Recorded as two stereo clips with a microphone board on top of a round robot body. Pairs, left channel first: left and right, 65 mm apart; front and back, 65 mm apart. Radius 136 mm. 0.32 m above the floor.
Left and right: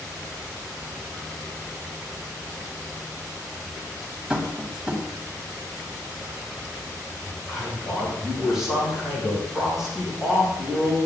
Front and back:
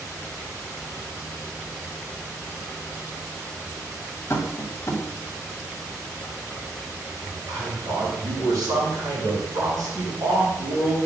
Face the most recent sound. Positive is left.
turn(degrees=-175)